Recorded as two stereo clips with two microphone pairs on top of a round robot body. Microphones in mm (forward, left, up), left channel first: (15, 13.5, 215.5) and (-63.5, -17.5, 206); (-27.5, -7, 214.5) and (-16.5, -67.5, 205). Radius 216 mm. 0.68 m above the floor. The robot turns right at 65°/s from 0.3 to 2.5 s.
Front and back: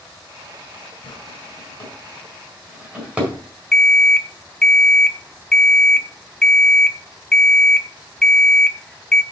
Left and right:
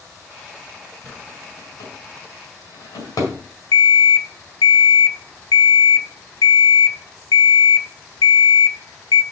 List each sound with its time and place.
1.0 s a drawer: 30° left, 4.5 m; by 3.4 s 125° left, 4.5 m
3.7 s an alarm clock: 105° left, 0.7 m